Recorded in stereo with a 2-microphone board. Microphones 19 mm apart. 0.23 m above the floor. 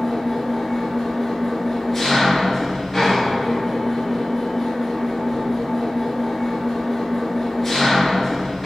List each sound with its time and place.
0.0 s an engine running: 15° left (ahead or behind), 1.0 m